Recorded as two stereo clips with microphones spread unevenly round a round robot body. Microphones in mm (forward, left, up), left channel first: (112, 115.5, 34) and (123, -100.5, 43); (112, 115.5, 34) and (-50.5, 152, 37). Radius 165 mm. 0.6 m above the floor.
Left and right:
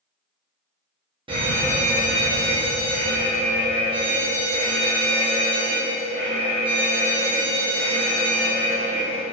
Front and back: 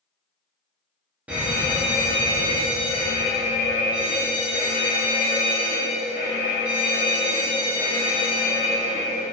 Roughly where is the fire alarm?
Behind right.